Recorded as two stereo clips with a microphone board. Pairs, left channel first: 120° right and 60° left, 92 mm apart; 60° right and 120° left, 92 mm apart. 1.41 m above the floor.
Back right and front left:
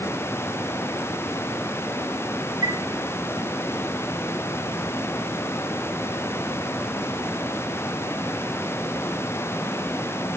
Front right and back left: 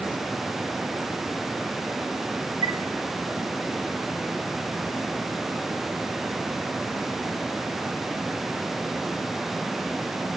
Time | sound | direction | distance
2.6 | a chime | 95° left | 0.9 m